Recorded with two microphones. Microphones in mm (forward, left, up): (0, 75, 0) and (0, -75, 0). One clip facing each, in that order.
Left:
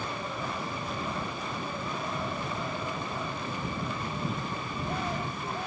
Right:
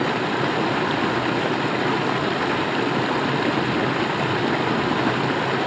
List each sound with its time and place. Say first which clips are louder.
0.0 s running water: right 13 dB; 80° right